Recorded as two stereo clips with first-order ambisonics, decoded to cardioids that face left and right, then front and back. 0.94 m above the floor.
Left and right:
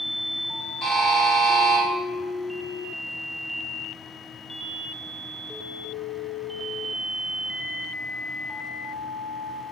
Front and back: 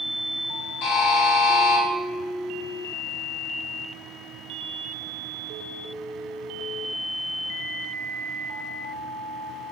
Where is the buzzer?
Straight ahead, 1.4 m.